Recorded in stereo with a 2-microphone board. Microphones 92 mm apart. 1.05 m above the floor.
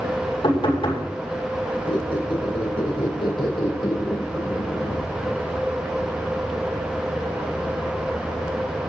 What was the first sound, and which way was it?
Knocking, 70° left (ahead or behind).